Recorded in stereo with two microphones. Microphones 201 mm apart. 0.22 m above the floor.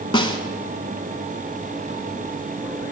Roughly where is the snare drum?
Left.